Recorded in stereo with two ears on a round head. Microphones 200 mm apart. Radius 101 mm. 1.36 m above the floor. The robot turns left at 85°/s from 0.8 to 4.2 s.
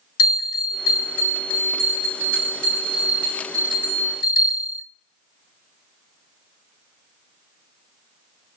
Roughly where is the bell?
Left.